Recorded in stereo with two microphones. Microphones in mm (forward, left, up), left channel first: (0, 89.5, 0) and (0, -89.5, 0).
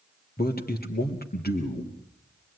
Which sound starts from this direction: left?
A man speaking, at 0.4 s.